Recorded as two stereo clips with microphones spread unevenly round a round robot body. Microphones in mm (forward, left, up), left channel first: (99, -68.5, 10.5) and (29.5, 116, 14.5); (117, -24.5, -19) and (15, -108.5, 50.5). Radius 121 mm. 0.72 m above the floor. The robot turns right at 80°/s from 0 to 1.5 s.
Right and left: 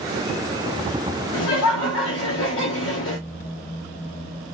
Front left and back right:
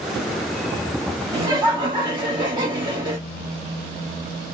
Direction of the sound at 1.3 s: 85° right.